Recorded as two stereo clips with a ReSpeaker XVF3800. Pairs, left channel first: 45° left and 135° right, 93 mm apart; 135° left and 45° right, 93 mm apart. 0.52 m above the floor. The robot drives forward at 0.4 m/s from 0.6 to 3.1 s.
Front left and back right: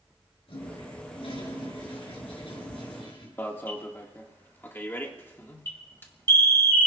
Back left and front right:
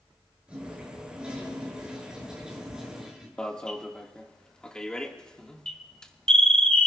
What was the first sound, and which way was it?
A toilet flushing, 35° left.